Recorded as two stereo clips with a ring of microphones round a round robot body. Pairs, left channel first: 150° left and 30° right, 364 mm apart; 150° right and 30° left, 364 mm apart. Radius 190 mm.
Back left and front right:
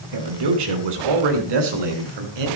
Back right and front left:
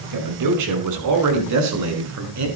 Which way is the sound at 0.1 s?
5° right.